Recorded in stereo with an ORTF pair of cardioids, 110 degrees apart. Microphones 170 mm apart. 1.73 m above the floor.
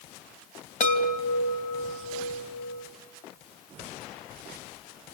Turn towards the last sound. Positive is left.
turn(degrees=50)